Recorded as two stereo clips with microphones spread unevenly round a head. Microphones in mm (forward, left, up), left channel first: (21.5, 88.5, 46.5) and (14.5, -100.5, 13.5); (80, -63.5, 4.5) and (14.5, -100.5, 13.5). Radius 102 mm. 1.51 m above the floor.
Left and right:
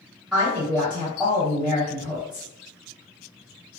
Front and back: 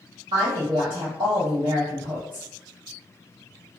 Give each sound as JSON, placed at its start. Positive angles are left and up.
{"t": 0.3, "sound": "a woman speaking", "azimuth_deg": 180, "distance_m": 1.6}